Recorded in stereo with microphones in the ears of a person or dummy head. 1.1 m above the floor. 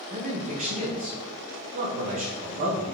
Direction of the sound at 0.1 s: 35° right (ahead or behind).